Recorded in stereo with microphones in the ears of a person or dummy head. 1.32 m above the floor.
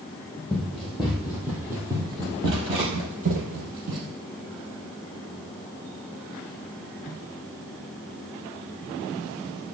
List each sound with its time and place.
0.5 s running footsteps: 5° left (ahead or behind), 2.5 m; by 4.1 s 55° right (ahead or behind), 2.5 m